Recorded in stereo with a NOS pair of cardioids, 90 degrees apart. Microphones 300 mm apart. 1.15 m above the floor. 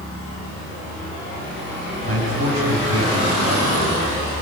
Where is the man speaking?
50° right, 7 m.